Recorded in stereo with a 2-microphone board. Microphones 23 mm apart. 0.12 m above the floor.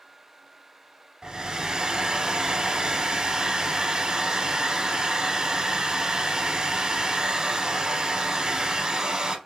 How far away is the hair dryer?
About 0.9 m.